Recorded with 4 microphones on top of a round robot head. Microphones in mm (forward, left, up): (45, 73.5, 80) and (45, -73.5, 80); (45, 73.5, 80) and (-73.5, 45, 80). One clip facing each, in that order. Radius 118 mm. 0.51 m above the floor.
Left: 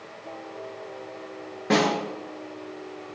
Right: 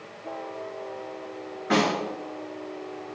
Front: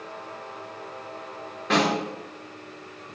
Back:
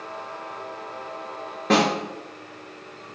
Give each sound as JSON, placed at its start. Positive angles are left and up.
{"t": 1.7, "sound": "a snare drum", "azimuth_deg": 145, "distance_m": 6.5}